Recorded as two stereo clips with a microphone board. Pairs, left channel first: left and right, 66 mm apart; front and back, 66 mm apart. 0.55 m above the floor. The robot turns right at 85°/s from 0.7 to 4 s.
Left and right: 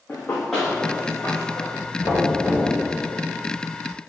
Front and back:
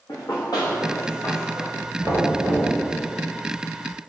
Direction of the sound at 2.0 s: 125° left.